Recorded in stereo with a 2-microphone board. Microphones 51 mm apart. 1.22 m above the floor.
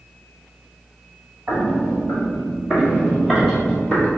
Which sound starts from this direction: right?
Footsteps, at 1.5 s.